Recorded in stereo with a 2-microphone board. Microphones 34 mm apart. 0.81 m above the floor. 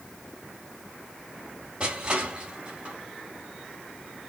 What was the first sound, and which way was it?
Crushing, 30° right (ahead or behind).